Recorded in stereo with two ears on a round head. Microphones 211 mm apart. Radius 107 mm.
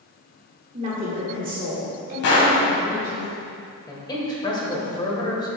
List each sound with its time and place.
0.7 s a woman speaking: 30° right (ahead or behind), 1.3 m; by 3.2 s 45° right (ahead or behind), 3 m
2.2 s a gunshot: 65° left (ahead or behind), 1.9 m
3.9 s a man speaking: 20° left (ahead or behind), 1.6 m